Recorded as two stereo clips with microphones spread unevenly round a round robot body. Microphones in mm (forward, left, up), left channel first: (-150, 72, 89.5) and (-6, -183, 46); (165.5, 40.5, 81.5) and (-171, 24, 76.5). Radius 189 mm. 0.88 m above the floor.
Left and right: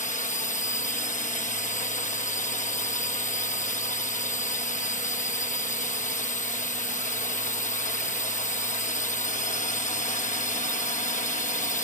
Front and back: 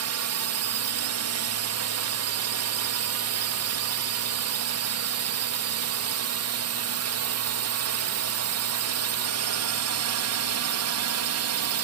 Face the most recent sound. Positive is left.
turn(degrees=-175)